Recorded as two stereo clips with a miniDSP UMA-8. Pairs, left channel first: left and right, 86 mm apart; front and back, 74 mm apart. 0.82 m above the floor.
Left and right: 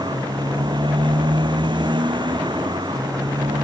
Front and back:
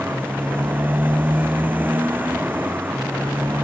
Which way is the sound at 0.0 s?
115° right.